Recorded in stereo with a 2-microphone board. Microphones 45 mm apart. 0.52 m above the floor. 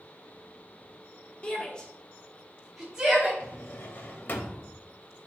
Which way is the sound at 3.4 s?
50° left (ahead or behind).